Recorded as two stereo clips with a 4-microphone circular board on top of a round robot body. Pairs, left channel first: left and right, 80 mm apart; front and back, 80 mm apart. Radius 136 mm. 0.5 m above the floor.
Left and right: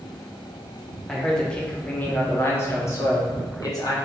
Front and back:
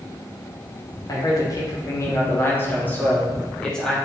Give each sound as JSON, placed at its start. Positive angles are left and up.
{"t": 1.1, "sound": "a man speaking", "azimuth_deg": 5, "distance_m": 1.6}